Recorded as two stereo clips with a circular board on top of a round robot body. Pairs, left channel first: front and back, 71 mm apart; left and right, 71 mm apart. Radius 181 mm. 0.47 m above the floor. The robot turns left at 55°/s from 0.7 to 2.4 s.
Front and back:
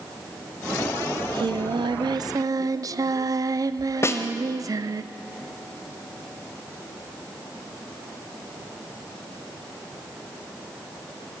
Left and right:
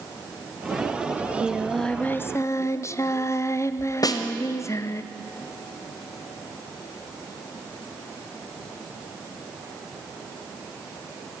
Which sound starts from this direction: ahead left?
A snare drum, at 4.0 s.